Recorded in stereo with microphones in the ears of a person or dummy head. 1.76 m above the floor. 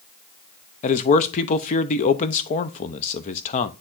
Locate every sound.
0.8 s a man speaking: 40° left (ahead or behind), 0.9 m